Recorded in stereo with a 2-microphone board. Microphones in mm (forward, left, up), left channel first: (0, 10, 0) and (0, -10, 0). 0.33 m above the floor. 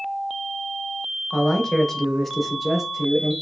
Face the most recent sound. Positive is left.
turn(degrees=-20)  # may be behind; listen again after turning